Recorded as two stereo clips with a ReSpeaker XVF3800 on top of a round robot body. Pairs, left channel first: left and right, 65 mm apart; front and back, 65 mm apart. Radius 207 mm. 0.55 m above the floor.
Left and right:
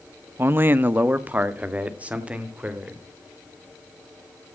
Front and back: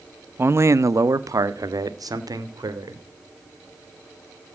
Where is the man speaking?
130° right, 0.8 m; by 3.0 s 160° right, 2.5 m.